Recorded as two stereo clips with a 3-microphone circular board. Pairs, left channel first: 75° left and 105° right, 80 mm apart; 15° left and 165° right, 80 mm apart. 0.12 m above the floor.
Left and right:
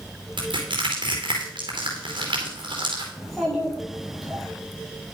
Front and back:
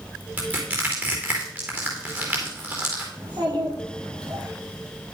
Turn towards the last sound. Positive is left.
turn(degrees=165)